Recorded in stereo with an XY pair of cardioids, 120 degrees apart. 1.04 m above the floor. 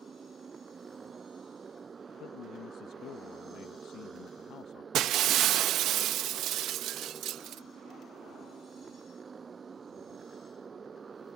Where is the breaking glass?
65° right.